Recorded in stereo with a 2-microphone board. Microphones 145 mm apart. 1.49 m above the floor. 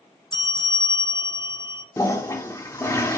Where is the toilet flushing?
20° left (ahead or behind), 1.1 m.